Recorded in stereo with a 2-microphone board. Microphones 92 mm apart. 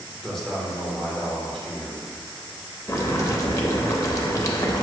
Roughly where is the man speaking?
Centre.